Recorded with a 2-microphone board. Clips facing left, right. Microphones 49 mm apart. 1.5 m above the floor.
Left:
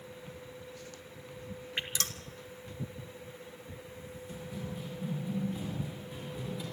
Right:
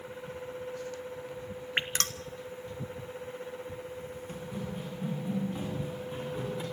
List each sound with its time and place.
1.8 s dripping: 50° right (ahead or behind), 1.2 m
4.3 s running footsteps: 55° right (ahead or behind), 7 m; by 6.6 s 40° right (ahead or behind), 7.5 m